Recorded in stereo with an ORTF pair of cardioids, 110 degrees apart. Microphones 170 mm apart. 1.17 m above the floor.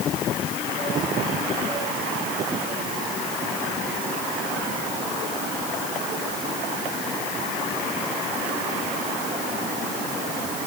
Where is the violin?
No violin in this recording.